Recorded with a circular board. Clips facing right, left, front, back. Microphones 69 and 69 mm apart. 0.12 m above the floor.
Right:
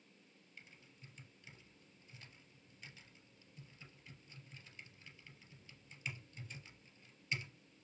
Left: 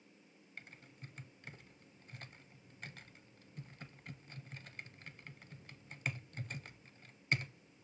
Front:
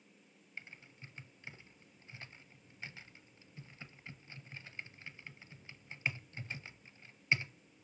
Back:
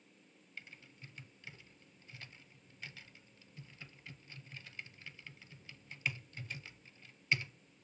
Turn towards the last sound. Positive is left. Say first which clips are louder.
# left 6 dB, front 2 dB
turn(degrees=65)